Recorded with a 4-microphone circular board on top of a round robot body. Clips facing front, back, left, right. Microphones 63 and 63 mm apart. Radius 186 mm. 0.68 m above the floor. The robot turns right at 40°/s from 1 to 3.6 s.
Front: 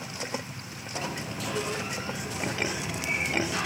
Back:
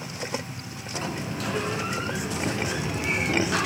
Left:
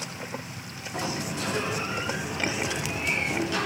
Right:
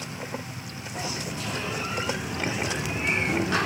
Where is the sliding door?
120° left, 1.9 m; by 3.7 s 135° right, 1.9 m.